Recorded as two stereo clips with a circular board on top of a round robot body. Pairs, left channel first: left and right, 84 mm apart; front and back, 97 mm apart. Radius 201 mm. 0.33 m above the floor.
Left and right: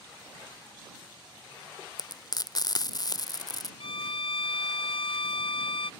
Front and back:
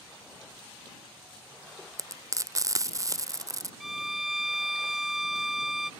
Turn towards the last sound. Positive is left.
turn(degrees=90)